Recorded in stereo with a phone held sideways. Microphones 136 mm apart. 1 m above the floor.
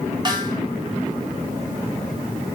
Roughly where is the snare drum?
Right.